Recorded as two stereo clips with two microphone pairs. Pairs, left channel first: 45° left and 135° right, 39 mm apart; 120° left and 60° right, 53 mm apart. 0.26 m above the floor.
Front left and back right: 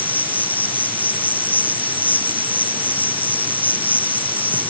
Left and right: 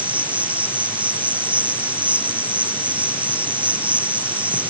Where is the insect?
Straight ahead.